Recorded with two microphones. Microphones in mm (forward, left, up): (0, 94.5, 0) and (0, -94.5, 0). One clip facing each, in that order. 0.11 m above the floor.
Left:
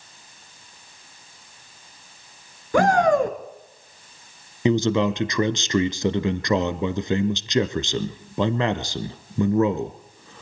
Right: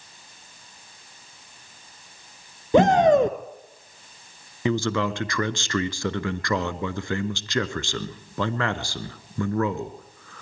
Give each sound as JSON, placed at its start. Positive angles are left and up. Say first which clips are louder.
{"t": 2.7, "sound": "a shout", "louder": "right 2 dB", "side_deg": -25, "distance_m": 1.4}
{"t": 4.7, "sound": "a man speaking", "louder": "left 5 dB", "side_deg": 20, "distance_m": 1.1}